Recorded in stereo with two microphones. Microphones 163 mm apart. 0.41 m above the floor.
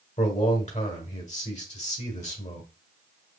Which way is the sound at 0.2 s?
45° left (ahead or behind).